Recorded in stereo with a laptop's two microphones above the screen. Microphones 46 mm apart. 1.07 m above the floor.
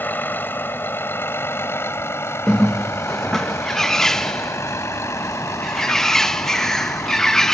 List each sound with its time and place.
0.0 s a vehicle: 45° left (ahead or behind); by 7.5 s 85° left
2.5 s a bird: 10° left (ahead or behind)